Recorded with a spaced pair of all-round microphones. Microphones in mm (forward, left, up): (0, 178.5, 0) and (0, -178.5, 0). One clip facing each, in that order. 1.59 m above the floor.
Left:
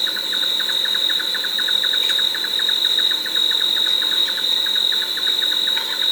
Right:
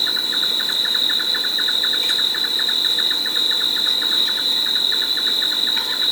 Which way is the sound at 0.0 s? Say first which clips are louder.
Right 2 dB; 55° right (ahead or behind).